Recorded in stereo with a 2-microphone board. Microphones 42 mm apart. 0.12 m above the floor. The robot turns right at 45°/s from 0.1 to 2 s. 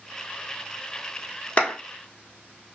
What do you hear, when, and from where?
1.6 s a clap: 30° left (ahead or behind), 1.0 m